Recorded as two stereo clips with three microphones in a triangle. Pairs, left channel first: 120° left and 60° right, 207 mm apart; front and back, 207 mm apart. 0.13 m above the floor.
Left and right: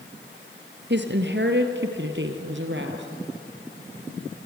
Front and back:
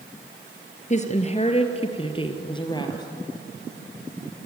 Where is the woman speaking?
50° right, 2.5 m; by 3.1 s 70° right, 3 m.